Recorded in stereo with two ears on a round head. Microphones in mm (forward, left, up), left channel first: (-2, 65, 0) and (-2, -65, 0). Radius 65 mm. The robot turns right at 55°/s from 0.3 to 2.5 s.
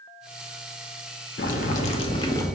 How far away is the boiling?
About 0.6 m.